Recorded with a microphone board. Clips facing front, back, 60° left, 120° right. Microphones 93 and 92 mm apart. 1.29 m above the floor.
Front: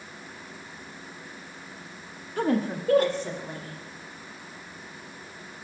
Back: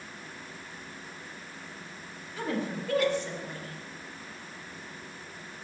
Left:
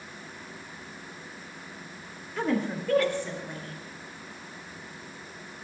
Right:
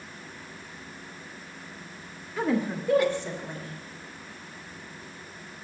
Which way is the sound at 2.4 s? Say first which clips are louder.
Front 7 dB, right 1 dB; 35° right.